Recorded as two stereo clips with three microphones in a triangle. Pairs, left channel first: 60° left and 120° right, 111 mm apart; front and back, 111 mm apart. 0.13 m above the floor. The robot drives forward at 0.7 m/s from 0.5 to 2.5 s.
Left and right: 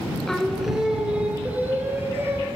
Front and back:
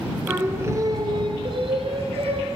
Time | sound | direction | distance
0.3 | singing | 145° left | 0.8 m